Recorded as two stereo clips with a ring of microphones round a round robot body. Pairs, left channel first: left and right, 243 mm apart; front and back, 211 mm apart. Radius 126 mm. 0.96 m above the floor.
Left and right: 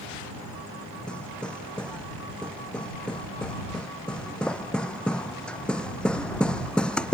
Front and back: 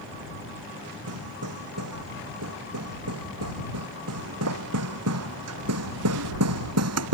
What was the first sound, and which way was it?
Hammering, 175° left.